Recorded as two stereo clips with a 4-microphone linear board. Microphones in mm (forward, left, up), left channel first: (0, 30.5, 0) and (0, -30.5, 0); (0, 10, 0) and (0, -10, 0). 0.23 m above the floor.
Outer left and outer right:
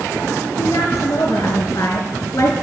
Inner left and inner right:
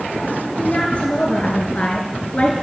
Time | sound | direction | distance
0.6 | a woman speaking | 75° left (ahead or behind) | 4.5 m